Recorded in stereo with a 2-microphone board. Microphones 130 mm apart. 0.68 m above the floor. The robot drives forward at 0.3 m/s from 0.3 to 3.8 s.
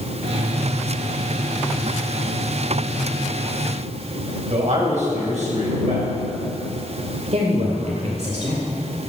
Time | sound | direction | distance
4.5 | a man speaking | 60° right (ahead or behind) | 4.5 m
7.3 | a woman speaking | 55° right (ahead or behind) | 2.0 m